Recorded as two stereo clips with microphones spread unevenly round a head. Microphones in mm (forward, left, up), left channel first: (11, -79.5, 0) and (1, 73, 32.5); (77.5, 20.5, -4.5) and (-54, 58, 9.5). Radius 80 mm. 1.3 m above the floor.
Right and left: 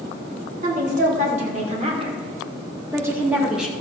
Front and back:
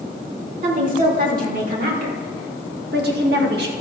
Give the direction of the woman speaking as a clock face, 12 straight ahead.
7 o'clock.